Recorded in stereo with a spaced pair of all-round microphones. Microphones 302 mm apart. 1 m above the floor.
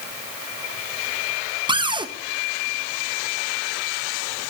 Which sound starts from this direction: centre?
A cupboard door, at 1.7 s.